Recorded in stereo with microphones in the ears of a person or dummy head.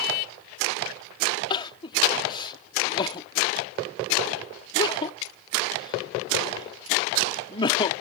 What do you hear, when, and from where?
1.5 s crying: 30° left (ahead or behind)